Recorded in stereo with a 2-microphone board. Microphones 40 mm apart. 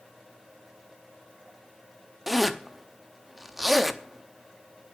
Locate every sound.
2.3 s a zipper: 5° right (ahead or behind), 0.7 m